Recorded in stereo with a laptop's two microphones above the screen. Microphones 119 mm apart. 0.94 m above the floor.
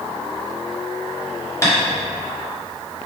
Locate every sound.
1.6 s tapping: 25° left (ahead or behind), 1.8 m